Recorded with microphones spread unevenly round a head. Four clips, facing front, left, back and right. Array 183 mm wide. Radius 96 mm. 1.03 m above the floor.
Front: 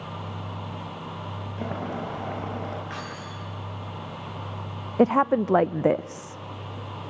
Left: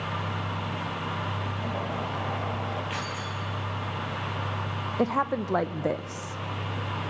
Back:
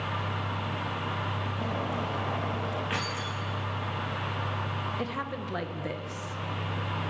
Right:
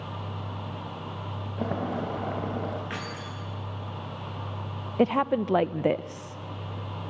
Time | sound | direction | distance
1.6 | boiling | 70° right | 3.5 m
2.9 | keys jangling | 140° right | 9.5 m
5.0 | a woman speaking | 15° right | 0.6 m